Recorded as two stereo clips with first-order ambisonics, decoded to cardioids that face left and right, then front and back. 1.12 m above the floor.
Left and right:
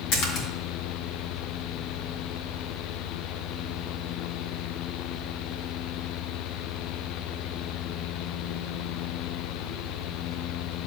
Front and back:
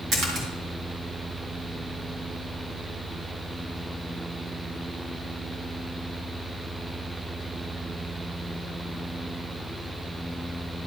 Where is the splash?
120° left, 2.5 m.